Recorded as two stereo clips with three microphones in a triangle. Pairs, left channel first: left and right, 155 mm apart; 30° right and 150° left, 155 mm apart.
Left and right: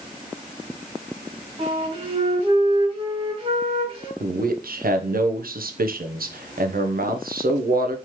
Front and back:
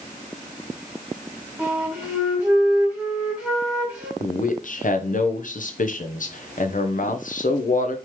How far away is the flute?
About 1.7 m.